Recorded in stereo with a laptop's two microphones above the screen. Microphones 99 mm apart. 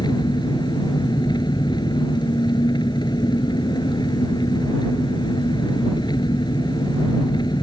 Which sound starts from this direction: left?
An engine running, at 0.0 s.